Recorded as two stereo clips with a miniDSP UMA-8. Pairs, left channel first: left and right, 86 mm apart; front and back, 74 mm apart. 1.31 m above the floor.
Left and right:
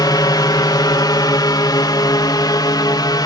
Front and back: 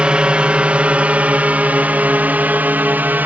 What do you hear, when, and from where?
0.0 s a drone: 110° left; by 3.3 s 120° left